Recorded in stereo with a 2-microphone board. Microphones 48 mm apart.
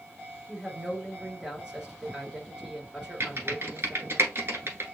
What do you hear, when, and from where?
0.5 s a woman speaking: 15° right (ahead or behind), 2.5 m
3.2 s typing on a keyboard: 50° right (ahead or behind), 1.2 m